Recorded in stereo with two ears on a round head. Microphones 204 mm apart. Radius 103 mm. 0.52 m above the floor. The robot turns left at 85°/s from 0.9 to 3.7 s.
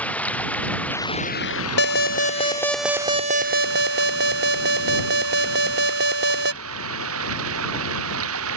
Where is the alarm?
85° left; by 6.5 s 75° right.